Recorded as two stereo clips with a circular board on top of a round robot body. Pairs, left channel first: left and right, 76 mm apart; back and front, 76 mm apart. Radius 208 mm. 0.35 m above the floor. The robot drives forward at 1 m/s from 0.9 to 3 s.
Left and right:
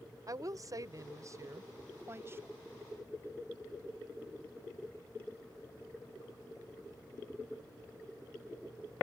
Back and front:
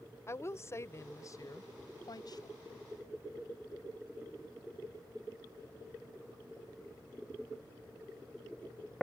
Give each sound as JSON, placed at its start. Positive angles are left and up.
{"t": 0.3, "sound": "a woman speaking", "azimuth_deg": -125}